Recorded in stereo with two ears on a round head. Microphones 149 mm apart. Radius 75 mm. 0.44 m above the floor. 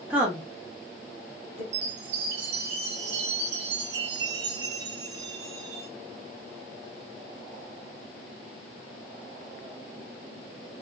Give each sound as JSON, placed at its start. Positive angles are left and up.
{"t": 0.1, "sound": "a woman speaking", "side_deg": -10, "distance_m": 1.1}
{"t": 1.7, "sound": "a chime", "side_deg": -75, "distance_m": 0.9}